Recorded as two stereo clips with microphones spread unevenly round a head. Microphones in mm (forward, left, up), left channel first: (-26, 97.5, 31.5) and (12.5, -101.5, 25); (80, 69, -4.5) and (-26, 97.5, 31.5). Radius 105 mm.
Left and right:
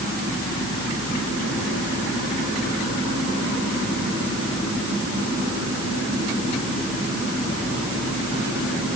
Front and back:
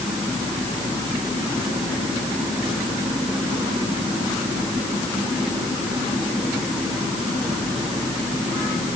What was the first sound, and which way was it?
Only background noise.